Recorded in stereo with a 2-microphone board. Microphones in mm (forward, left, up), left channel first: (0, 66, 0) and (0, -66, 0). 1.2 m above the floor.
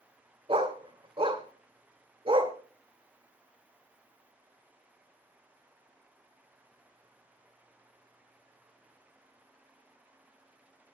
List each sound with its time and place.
0.5 s a dog barking: 45° right (ahead or behind), 1.8 m